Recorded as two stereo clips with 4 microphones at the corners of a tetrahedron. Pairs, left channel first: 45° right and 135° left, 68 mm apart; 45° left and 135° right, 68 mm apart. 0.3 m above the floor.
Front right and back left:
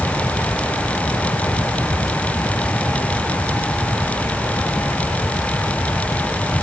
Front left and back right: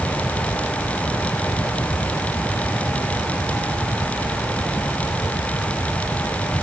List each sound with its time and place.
Only background noise.